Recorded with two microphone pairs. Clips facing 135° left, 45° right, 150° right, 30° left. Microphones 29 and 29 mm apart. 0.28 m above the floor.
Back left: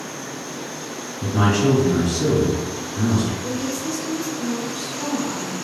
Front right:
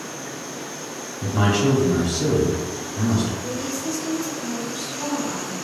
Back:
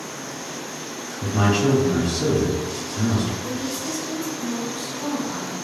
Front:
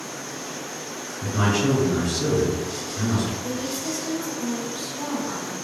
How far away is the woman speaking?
About 1.7 m.